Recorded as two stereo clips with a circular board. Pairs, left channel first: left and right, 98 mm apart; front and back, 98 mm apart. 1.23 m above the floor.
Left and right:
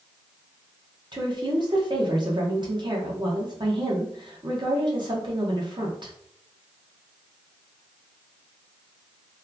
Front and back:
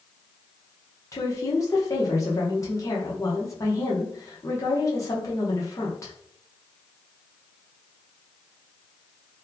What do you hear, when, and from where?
1.1 s a woman speaking: 55° right, 1.1 m